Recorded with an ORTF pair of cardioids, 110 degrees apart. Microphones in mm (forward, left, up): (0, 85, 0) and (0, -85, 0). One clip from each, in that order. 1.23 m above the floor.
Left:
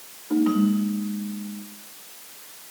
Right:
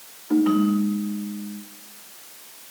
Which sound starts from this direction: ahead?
A ringtone, at 0.3 s.